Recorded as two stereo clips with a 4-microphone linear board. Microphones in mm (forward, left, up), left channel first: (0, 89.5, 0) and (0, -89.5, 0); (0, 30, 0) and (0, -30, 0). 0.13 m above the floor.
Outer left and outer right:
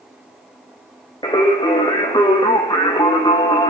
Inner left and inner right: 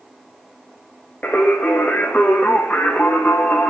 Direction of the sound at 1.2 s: 25° left (ahead or behind).